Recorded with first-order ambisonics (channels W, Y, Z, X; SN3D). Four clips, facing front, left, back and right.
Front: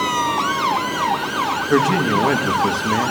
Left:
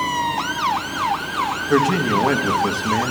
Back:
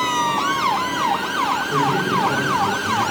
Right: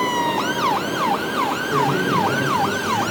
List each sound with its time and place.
1.7 s a man speaking: 35° left, 1.0 m